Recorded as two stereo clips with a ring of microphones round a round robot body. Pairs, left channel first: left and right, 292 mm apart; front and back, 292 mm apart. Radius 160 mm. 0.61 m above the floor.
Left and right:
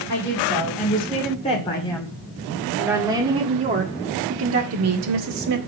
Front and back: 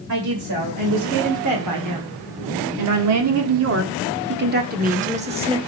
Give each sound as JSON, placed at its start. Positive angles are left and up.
{"t": 0.1, "sound": "a woman speaking", "azimuth_deg": 150, "distance_m": 2.5}